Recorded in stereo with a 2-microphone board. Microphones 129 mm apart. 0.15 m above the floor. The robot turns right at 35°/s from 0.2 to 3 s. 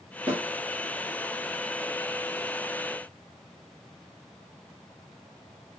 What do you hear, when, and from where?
0.3 s a snare drum: 10° right (ahead or behind), 2.0 m; by 0.4 s 5° right (ahead or behind), 2.0 m